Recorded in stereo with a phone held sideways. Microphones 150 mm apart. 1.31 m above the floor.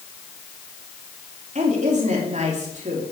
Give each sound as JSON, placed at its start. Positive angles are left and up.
{"t": 1.6, "sound": "a woman speaking", "side_deg": -50, "distance_m": 3.5}